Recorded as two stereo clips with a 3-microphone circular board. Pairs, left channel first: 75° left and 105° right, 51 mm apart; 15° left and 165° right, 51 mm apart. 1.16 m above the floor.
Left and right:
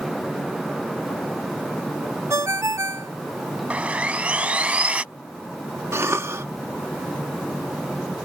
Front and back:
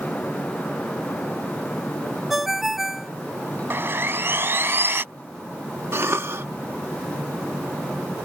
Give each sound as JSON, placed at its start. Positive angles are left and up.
{"t": 2.3, "sound": "a ringtone", "azimuth_deg": -80}
{"t": 3.7, "sound": "sawing", "azimuth_deg": -160}
{"t": 5.9, "sound": "a cough", "azimuth_deg": -135}